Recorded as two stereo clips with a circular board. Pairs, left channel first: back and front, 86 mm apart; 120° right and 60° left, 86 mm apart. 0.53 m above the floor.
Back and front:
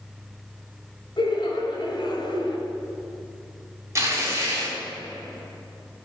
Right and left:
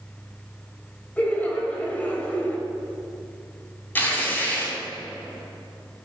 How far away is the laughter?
About 2 m.